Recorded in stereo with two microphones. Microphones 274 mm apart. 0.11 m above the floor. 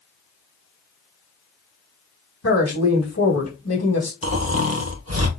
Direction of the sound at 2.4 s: 70° left (ahead or behind).